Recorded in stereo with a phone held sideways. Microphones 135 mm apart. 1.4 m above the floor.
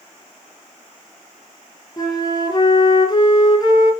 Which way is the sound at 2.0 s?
30° left (ahead or behind).